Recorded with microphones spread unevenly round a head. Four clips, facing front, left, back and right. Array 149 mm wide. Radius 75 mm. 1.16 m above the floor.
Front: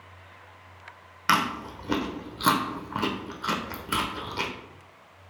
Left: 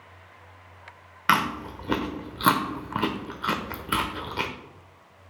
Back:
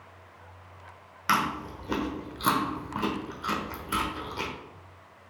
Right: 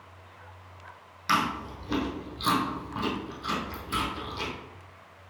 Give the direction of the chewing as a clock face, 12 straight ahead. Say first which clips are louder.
Left 3 dB, front 2 dB; 10 o'clock.